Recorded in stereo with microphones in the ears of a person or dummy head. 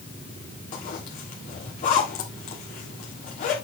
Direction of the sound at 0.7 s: 25° left (ahead or behind).